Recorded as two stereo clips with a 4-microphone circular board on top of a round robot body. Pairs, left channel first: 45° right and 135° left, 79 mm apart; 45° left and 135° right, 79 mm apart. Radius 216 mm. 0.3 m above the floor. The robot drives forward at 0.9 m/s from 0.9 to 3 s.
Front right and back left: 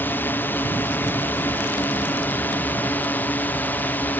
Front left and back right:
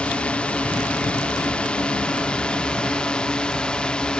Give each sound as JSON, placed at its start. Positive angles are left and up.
{"t": 0.0, "sound": "a drone", "azimuth_deg": -15}